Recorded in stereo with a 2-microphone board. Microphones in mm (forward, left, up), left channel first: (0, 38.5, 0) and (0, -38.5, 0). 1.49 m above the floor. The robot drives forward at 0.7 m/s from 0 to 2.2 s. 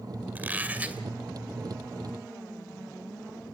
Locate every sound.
0.3 s a squeak: 25° right (ahead or behind), 1.7 m; by 1.0 s 20° right (ahead or behind), 2 m